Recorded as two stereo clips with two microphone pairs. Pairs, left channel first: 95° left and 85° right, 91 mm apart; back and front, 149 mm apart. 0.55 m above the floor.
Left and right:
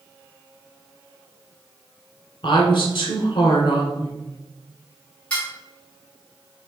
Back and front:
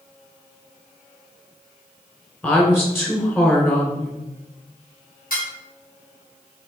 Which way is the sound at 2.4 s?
105° left.